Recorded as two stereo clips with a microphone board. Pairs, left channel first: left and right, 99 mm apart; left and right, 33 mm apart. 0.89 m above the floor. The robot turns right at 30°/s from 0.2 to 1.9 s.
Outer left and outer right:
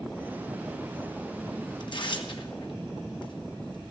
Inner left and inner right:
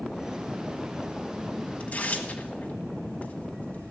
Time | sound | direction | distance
1.8 | tearing paper | 50° left (ahead or behind) | 1.6 m